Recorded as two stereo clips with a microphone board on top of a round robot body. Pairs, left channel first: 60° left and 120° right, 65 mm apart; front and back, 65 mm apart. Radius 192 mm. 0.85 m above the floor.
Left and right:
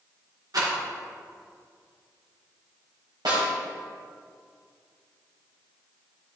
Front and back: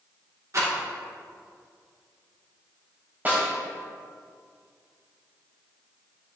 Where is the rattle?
140° right, 2.5 m.